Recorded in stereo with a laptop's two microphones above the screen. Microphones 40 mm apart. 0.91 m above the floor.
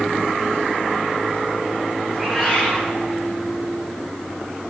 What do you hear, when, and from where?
2.1 s a cat meowing: 25° right (ahead or behind), 9 m